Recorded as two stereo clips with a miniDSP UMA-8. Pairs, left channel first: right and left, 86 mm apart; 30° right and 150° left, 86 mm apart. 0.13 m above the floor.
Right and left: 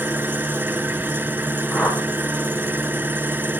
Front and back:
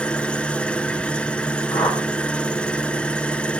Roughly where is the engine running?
Ahead left.